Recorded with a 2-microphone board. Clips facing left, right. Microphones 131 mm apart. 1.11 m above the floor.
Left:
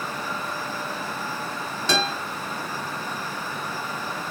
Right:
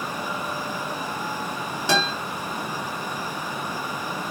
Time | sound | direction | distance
1.9 | a guitar | 15° right (ahead or behind) | 1.6 m